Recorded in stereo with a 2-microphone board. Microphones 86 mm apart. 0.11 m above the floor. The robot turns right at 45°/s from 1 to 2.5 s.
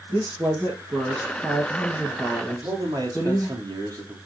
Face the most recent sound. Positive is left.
turn(degrees=-45)  # may be behind; listen again after turning